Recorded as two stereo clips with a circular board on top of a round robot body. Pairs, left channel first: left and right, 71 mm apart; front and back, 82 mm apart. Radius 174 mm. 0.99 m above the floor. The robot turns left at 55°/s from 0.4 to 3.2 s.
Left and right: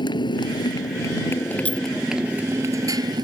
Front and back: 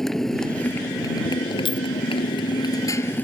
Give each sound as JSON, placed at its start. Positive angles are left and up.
{"t": 0.0, "sound": "a motorcycle", "azimuth_deg": 85}
{"t": 1.6, "sound": "a clink", "azimuth_deg": 20}